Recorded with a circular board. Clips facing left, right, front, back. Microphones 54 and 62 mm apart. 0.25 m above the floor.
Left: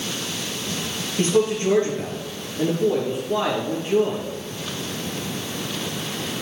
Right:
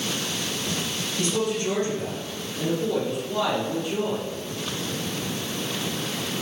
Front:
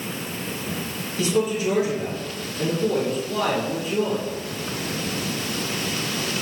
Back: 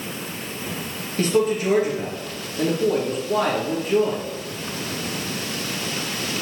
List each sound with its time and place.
1.2 s a man speaking: 140° left, 4 m